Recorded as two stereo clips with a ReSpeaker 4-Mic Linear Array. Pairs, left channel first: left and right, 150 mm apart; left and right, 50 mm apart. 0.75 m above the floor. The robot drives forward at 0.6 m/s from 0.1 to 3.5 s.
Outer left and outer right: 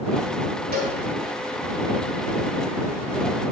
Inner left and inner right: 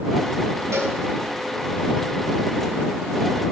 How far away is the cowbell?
About 2 m.